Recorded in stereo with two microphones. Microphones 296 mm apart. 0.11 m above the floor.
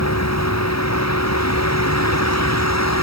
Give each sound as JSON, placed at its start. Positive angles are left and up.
{"t": 0.0, "sound": "a vehicle", "side_deg": 60}